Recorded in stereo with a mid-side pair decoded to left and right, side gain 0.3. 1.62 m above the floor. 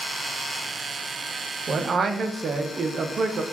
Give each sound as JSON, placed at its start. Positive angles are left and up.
{"t": 1.7, "sound": "a man speaking", "azimuth_deg": -70, "distance_m": 0.5}